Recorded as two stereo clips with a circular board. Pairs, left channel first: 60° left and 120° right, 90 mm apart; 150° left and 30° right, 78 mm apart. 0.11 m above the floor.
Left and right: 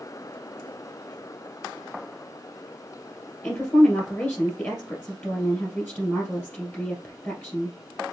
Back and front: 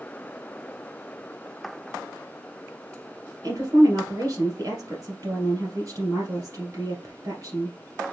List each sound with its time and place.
3.4 s a woman speaking: straight ahead, 2 m